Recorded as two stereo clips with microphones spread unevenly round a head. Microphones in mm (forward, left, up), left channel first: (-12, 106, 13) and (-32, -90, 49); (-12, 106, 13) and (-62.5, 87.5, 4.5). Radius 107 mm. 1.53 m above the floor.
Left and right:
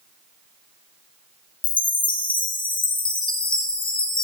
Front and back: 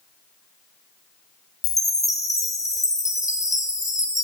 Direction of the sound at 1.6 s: 20° left.